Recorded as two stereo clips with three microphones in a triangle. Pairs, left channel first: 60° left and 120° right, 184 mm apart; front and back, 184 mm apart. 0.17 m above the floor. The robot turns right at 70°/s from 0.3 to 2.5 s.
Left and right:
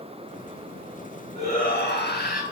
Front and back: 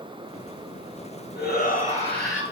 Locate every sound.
1.4 s a shout: 5° left, 2.5 m; by 2.4 s 80° left, 2.5 m